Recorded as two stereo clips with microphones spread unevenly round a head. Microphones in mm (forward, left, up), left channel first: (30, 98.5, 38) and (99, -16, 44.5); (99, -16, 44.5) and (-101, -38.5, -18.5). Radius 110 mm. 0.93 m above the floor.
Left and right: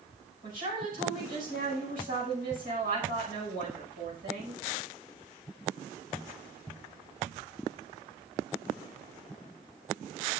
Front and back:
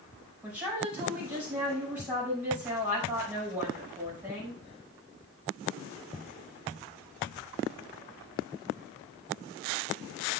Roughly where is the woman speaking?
Right.